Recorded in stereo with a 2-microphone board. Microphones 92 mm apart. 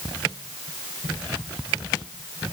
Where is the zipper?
No zipper in this recording.